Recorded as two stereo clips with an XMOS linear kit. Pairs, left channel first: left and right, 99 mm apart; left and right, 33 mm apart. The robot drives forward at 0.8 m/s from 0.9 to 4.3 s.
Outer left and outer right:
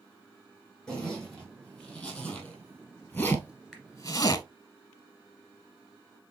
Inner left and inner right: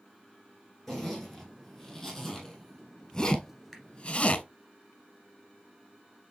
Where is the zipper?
5° left (ahead or behind), 3 m; by 4.4 s 35° left (ahead or behind), 0.5 m.